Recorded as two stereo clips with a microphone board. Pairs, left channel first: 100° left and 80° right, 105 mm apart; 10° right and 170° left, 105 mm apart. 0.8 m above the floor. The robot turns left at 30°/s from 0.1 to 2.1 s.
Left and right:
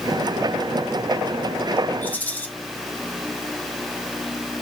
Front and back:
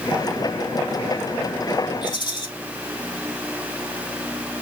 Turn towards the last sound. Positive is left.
turn(degrees=30)